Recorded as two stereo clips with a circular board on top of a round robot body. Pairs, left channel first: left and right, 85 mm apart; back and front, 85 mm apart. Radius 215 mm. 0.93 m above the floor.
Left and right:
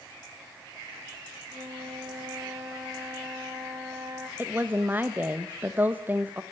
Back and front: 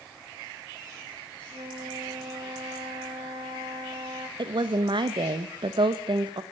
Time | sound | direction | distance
1.5 | a flute | 35° right | 0.8 m
4.4 | a woman speaking | 20° right | 1.4 m